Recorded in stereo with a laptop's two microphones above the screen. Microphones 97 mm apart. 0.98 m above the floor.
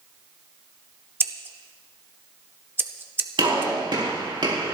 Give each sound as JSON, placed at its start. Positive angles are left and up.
{"t": 1.2, "sound": "scissors", "side_deg": -20, "distance_m": 0.6}
{"t": 3.4, "sound": "a gunshot", "side_deg": -55, "distance_m": 4.5}